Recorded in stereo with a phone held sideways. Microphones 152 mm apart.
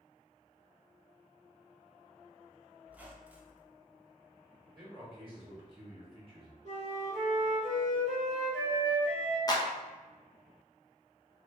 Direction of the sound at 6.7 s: 60° right (ahead or behind).